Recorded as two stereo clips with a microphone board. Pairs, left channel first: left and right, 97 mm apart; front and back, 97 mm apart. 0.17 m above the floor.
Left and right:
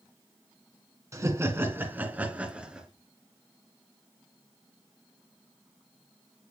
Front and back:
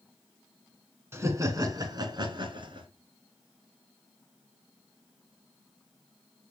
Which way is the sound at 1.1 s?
130° right.